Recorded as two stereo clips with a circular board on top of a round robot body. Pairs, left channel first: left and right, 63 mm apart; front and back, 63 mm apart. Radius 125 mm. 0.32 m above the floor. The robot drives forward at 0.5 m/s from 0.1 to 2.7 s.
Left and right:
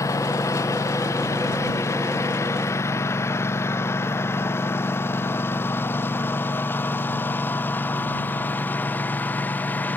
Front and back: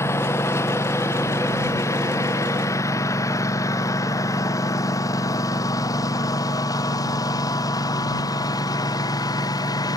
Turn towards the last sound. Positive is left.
turn(degrees=25)